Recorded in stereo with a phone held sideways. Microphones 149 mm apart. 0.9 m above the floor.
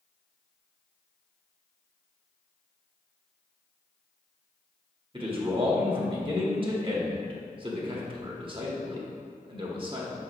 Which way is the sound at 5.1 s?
35° right (ahead or behind).